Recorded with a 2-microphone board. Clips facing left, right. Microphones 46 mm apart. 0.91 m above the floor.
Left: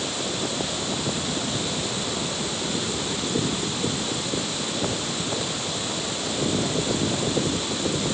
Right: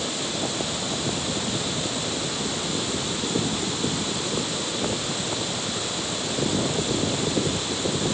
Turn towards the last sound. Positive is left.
No sound to turn to.